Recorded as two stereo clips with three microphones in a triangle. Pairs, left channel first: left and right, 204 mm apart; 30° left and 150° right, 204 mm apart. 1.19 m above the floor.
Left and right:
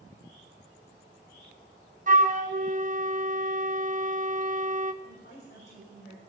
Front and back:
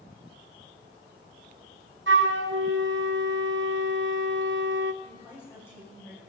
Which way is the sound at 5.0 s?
110° left.